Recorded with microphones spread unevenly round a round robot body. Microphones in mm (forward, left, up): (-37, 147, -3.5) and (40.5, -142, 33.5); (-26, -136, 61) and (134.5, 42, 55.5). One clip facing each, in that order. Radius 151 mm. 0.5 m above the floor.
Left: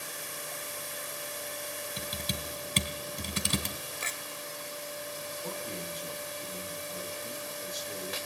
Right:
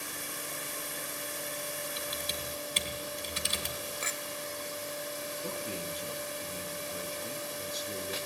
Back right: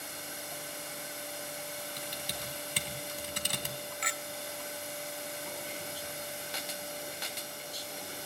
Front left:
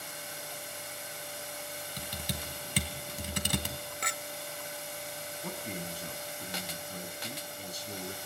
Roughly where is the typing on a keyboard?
Left.